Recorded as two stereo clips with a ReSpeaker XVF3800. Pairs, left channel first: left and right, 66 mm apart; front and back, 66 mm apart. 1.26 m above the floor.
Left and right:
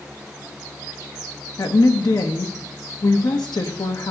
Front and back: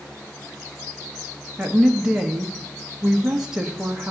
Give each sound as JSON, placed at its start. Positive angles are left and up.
{"t": 1.6, "sound": "a woman speaking", "azimuth_deg": 100, "distance_m": 1.3}